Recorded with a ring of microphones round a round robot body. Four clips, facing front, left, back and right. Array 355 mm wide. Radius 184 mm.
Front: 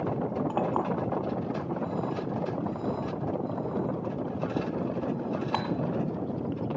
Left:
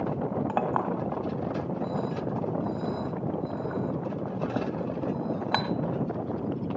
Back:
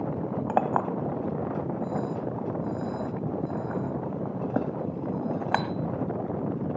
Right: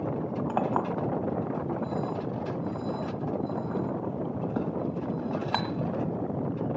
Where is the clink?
170° left, 1.8 m.